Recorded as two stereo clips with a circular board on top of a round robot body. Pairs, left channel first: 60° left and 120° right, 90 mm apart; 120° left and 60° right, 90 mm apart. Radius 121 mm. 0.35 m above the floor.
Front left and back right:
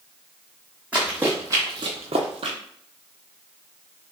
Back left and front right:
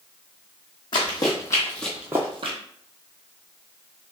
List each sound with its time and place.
0.9 s running footsteps: 160° left, 1.3 m; by 2.6 s 85° right, 0.7 m